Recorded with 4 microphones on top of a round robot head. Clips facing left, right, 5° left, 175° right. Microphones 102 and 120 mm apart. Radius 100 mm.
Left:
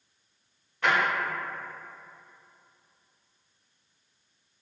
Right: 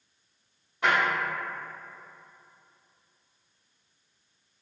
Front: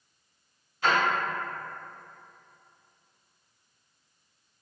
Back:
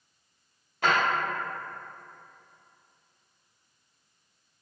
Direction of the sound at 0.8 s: 170° right.